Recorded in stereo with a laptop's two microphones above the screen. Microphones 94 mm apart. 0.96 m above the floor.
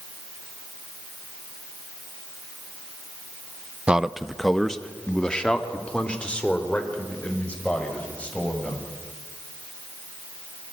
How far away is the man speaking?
About 0.6 m.